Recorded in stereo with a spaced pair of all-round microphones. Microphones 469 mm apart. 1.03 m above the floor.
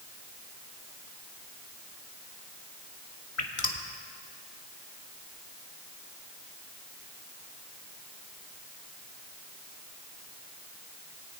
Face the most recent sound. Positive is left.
turn(degrees=80)